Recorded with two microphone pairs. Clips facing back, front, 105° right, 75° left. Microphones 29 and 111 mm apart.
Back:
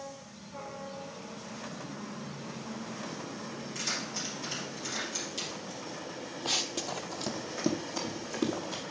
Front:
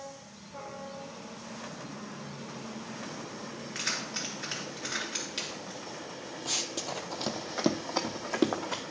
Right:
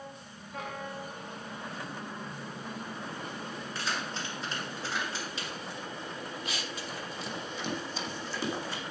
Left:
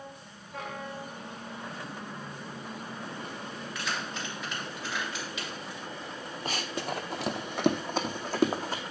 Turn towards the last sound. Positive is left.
turn(degrees=25)